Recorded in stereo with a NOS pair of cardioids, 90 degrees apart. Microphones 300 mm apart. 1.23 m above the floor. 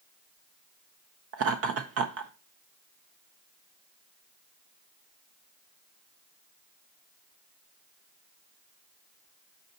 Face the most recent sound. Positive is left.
turn(degrees=-50)